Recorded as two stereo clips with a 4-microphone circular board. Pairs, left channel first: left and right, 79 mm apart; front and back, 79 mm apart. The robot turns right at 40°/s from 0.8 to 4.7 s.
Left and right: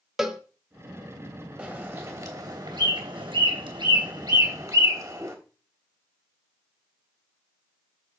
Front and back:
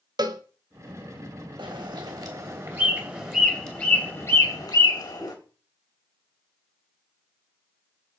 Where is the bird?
165° right, 3 m; by 5.4 s 40° right, 3 m.